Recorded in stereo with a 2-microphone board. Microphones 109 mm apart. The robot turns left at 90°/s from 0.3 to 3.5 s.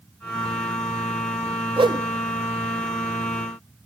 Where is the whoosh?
50° right (ahead or behind), 1.1 m; by 2.0 s 25° right (ahead or behind), 1.1 m.